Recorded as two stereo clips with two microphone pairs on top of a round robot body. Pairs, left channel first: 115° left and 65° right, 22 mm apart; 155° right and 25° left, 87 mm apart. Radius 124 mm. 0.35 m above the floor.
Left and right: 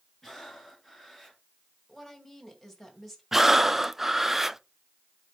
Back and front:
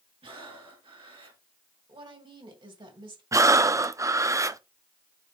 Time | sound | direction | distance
0.2 | breathing | 25° left | 3 m
1.9 | a woman speaking | 30° left | 2.5 m
3.3 | breathing | 10° left | 0.6 m